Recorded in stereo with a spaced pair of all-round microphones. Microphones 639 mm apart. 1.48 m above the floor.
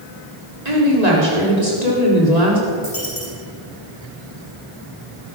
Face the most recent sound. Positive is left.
turn(degrees=65)  # may be behind; listen again after turning